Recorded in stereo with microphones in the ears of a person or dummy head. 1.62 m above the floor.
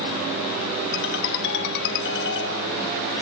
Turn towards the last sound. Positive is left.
turn(degrees=65)  # may be behind; listen again after turning